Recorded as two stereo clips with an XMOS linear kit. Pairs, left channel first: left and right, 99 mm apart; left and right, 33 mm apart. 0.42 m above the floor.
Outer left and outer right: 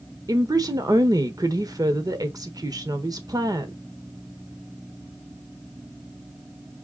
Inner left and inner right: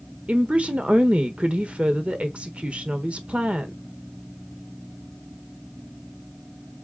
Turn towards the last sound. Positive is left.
turn(degrees=-40)  # may be behind; listen again after turning